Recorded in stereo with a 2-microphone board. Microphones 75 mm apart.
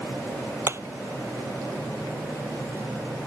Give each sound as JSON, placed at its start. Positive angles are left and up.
{"t": 0.7, "sound": "hammering", "side_deg": -35}